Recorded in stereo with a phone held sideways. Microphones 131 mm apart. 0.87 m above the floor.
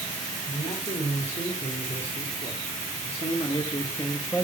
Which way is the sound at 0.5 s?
70° left (ahead or behind).